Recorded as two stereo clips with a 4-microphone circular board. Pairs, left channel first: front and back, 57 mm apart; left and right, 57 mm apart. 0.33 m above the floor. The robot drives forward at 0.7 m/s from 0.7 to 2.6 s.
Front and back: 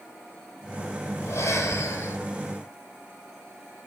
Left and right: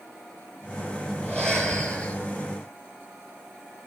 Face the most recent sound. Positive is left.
turn(degrees=40)